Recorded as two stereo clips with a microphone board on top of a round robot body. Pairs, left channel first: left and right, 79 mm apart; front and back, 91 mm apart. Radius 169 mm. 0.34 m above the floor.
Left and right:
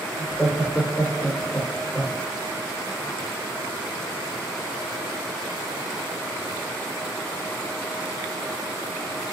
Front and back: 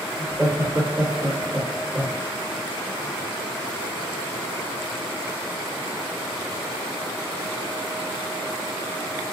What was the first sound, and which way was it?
Laughter, 155° left.